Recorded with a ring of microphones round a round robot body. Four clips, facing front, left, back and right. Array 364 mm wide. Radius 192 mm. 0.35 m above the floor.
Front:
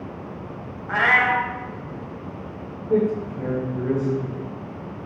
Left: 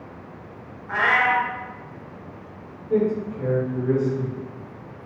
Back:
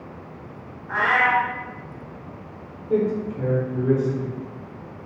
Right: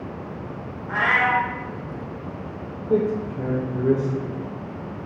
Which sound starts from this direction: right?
A man speaking, at 2.9 s.